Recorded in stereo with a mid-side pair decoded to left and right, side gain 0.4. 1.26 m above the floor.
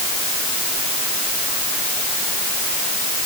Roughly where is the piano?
I don't hear a piano.